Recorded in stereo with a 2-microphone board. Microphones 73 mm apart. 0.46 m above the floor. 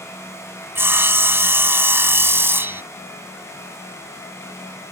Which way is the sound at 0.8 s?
30° right (ahead or behind).